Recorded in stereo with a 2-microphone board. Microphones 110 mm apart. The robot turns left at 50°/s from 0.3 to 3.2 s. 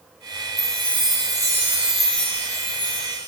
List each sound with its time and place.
0.6 s a chime: 110° right, 0.8 m; by 3.3 s 120° left, 0.8 m